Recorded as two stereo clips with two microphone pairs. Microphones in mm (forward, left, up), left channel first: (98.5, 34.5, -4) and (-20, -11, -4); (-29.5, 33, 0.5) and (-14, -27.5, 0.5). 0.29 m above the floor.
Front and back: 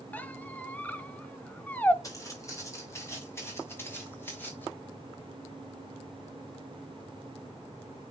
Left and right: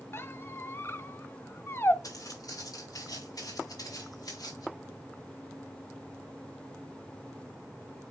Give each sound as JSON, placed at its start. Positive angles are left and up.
{"t": 0.1, "sound": "a squeak", "azimuth_deg": 85, "distance_m": 0.7}
{"t": 2.0, "sound": "footsteps", "azimuth_deg": 85, "distance_m": 6.0}